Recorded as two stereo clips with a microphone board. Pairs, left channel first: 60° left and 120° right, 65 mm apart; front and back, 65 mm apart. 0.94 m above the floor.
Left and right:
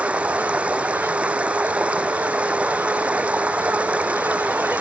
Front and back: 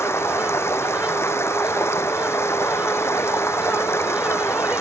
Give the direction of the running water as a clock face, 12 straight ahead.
2 o'clock.